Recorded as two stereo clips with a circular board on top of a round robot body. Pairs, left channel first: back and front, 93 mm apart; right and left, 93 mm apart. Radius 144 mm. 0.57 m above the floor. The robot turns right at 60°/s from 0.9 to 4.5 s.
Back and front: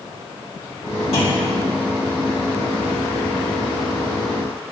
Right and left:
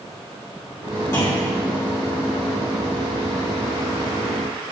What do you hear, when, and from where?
1.1 s a clunk: 155° right, 2.5 m; by 1.5 s 135° right, 2.5 m